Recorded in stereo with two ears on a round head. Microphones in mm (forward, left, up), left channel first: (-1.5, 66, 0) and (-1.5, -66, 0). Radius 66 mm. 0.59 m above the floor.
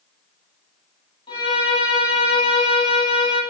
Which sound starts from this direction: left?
A violin, at 1.3 s.